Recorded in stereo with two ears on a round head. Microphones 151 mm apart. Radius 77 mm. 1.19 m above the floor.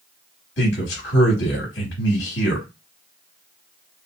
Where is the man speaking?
65° left (ahead or behind), 2.5 m.